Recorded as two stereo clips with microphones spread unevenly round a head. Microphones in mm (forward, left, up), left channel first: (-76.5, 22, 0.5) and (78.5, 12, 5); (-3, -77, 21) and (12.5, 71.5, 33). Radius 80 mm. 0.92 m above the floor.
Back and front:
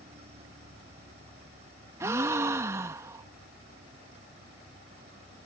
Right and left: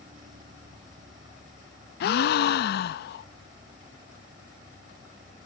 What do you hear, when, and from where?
0.0 s a machine running: 45° left
2.0 s a gasp: 80° right